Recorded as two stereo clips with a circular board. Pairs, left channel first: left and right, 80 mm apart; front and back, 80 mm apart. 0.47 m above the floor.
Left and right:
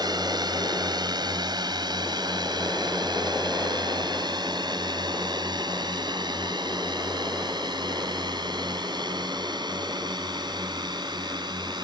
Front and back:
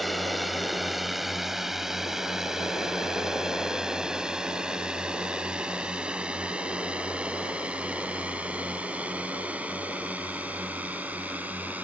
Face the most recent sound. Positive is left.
turn(degrees=-110)